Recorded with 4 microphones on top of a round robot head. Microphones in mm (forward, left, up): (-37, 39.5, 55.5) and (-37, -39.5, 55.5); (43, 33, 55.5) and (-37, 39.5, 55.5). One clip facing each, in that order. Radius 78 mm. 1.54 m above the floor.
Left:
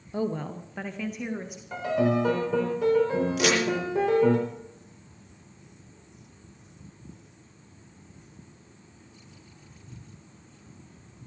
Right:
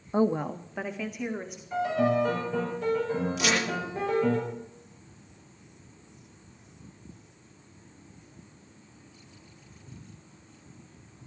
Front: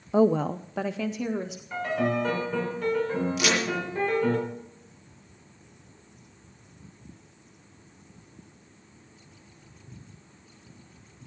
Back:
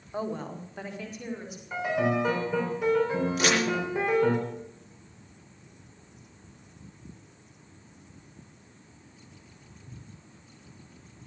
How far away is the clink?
No clink in this recording.